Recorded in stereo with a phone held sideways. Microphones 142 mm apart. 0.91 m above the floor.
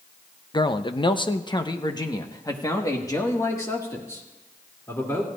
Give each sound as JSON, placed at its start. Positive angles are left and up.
{"t": 0.5, "sound": "a man speaking", "side_deg": 30, "distance_m": 0.6}